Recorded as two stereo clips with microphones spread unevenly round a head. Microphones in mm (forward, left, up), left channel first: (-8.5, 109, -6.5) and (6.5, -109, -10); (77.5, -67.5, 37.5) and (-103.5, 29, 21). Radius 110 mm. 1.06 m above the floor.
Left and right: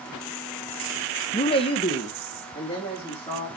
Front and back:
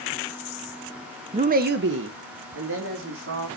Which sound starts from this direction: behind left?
A man speaking, at 1.3 s.